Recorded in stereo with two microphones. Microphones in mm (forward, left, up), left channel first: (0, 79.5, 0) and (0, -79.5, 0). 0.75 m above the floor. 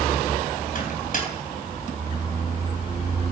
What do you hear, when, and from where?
0.8 s a microwave: 60° left (ahead or behind), 3 m